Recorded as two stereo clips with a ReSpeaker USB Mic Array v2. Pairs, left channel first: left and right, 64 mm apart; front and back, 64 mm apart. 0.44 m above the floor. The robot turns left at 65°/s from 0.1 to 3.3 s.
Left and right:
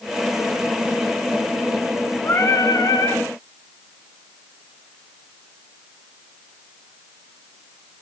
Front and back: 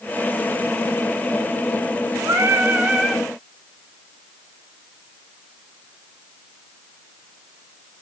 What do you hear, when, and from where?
2.2 s singing: 145° left, 1.3 m; by 3.2 s 80° left, 1.3 m